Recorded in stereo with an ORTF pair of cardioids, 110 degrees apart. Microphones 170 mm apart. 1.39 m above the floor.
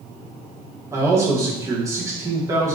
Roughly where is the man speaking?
Ahead.